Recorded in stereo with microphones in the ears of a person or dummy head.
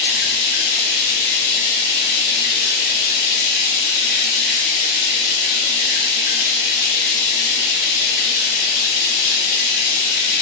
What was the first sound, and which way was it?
Running water, 45° left (ahead or behind).